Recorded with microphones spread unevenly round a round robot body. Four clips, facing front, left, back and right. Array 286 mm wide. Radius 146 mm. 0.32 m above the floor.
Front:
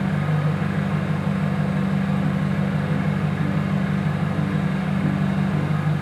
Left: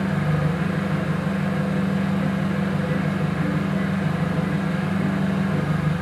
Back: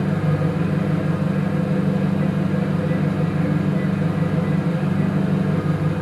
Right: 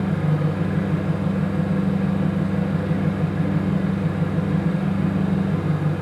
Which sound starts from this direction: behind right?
An engine running, at 0.0 s.